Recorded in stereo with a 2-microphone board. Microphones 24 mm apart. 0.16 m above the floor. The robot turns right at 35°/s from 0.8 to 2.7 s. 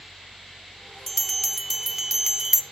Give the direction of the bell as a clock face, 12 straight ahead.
6 o'clock.